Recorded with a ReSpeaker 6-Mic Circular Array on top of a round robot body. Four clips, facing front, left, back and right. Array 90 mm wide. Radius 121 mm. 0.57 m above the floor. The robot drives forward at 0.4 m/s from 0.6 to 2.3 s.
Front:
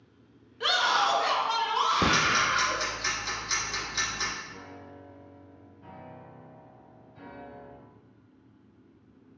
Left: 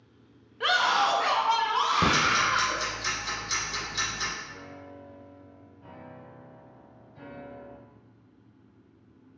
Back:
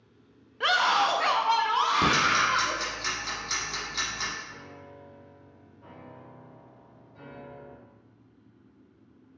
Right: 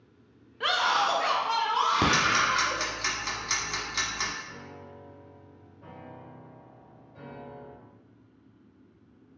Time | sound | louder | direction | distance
0.6 | a scream | left 2 dB, back 2 dB | 175° left | 0.8 m
2.0 | ticking | even, back 1 dB | 95° right | 1.2 m
4.4 | a piano | left 1 dB, front 1 dB | 130° right | 1.7 m